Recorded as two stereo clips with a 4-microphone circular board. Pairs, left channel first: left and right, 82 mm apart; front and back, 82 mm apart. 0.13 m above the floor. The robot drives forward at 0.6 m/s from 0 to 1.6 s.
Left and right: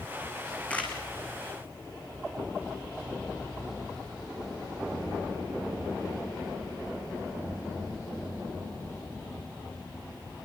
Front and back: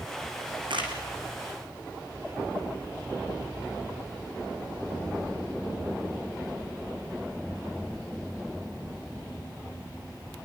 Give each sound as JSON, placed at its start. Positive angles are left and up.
{"t": 0.7, "sound": "a camera shutter", "azimuth_deg": 165, "distance_m": 6.0}